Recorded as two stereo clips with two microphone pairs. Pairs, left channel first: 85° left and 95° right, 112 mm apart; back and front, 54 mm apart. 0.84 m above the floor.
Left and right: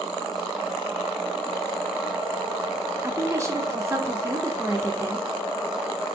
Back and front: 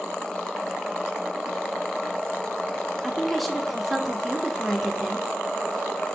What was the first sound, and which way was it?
A woman speaking, 100° right.